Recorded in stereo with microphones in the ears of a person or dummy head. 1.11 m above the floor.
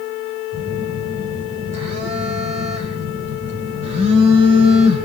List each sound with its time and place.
0.5 s a phone buzzing: 45° right (ahead or behind), 2 m